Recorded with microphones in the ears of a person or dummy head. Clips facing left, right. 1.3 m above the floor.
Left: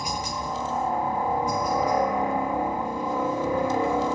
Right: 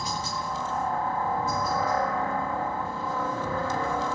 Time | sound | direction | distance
0.0 | a helicopter | 20° left (ahead or behind) | ?